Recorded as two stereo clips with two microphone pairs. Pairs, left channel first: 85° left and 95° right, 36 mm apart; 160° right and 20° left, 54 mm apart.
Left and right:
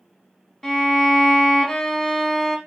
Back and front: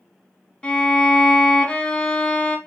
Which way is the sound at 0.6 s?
150° left.